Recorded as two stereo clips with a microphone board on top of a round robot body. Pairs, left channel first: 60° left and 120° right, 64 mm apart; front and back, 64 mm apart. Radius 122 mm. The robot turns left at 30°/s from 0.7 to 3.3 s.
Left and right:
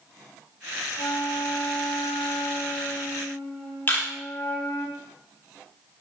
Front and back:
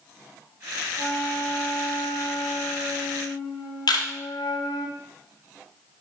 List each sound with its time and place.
1.0 s a flute: 75° left, 0.5 m; by 4.9 s 5° left, 0.5 m
3.9 s a camera shutter: straight ahead, 0.8 m